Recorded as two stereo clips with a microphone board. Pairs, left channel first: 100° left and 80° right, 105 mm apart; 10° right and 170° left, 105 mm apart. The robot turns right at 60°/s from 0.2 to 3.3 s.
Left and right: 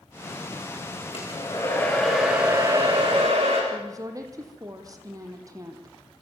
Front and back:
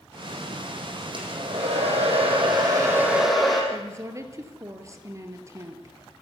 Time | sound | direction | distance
1.1 | a hair dryer | 130° left | 6.5 m
3.7 | a woman speaking | 130° right | 3.5 m